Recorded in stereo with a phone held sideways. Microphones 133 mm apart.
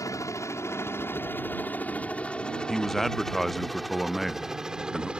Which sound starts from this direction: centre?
A man speaking, at 2.7 s.